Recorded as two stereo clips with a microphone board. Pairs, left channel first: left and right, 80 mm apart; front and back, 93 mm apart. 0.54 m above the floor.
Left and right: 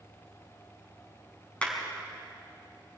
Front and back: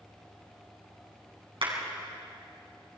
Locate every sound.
1.6 s a clap: 165° left, 5.5 m